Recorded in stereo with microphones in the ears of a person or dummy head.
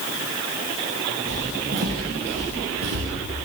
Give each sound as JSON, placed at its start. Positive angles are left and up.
{"t": 1.3, "sound": "footsteps", "side_deg": -60, "distance_m": 2.5}